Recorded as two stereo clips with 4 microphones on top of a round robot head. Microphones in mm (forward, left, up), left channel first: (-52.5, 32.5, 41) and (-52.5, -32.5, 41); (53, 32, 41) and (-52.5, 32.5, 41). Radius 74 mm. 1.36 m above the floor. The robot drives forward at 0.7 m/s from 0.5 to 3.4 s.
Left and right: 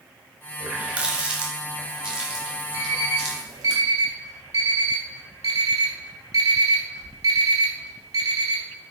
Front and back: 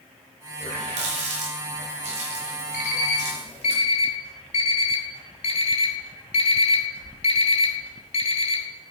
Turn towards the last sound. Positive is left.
turn(degrees=-35)